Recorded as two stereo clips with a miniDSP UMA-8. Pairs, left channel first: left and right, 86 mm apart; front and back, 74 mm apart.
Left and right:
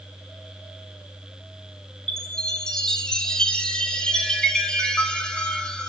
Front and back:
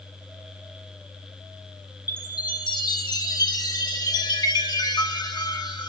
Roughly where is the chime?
Ahead.